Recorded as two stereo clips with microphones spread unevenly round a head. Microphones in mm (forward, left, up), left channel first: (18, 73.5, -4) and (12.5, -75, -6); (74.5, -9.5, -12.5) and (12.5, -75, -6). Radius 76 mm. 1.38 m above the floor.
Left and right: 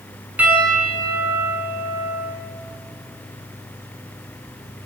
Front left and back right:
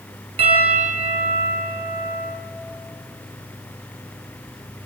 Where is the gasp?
No gasp in this recording.